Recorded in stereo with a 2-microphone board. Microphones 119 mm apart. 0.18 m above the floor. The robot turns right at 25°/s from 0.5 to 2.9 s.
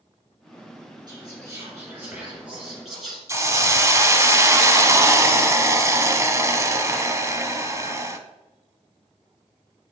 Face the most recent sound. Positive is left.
turn(degrees=-25)  # may be behind; listen again after turning